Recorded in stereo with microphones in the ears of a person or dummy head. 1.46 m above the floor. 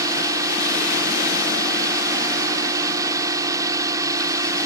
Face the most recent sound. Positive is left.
turn(degrees=-20)  # may be behind; listen again after turning